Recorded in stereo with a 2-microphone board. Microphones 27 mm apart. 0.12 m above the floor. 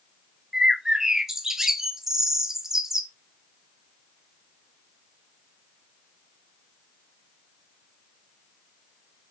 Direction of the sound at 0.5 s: 20° right (ahead or behind).